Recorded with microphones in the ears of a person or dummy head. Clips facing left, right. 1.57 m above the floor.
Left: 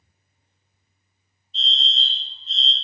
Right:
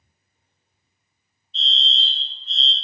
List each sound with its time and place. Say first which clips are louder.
1.5 s a fire alarm: right 1 dB; 65° right (ahead or behind), 1.3 m